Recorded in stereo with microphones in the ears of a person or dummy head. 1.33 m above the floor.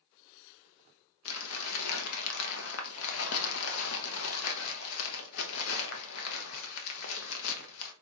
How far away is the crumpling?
About 0.9 m.